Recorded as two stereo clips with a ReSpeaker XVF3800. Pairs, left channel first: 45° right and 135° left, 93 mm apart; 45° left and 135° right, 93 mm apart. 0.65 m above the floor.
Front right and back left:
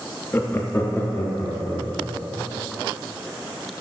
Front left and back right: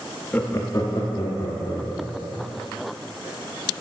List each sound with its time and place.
0.3 s laughter: 10° right, 0.6 m; by 2.5 s 25° left, 2 m